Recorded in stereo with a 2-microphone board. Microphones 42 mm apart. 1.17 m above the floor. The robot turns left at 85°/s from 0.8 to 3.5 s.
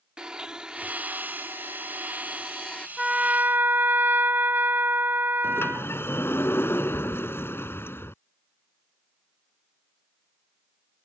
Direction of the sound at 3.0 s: 15° right.